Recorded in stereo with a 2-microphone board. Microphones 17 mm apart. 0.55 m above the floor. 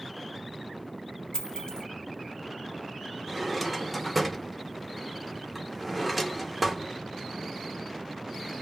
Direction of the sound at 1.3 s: 60° left (ahead or behind).